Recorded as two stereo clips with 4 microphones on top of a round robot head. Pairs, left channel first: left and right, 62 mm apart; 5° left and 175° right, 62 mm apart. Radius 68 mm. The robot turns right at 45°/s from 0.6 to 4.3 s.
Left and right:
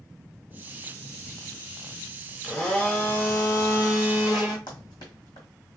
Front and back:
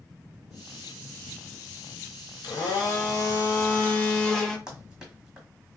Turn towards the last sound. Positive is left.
turn(degrees=110)